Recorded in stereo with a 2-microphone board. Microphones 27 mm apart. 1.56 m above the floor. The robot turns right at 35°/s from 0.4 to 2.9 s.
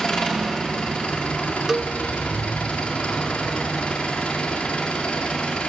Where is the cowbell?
20° right (ahead or behind), 0.5 m; by 1.9 s 30° right (ahead or behind), 0.5 m.